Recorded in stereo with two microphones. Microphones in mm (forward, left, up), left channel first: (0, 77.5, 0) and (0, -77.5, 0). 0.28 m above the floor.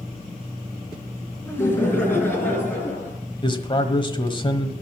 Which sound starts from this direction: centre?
Laughter, at 1.4 s.